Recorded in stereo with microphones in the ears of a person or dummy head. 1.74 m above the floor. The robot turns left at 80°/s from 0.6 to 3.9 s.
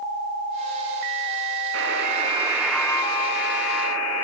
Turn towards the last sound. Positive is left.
turn(degrees=90)